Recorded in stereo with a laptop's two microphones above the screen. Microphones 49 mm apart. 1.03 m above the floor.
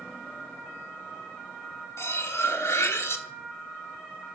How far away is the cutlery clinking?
About 1.1 m.